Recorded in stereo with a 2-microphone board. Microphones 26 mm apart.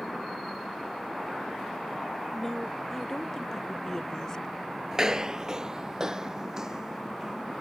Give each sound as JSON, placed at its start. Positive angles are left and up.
{"t": 2.3, "sound": "a woman speaking", "side_deg": 5}
{"t": 4.9, "sound": "footsteps", "side_deg": -20}